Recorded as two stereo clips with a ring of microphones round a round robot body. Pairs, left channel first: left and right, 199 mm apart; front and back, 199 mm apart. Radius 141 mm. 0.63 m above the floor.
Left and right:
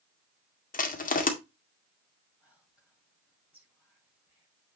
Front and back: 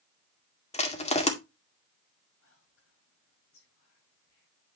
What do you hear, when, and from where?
0.7 s crushing: 50° left, 2 m
2.4 s whispering: 5° right, 5.5 m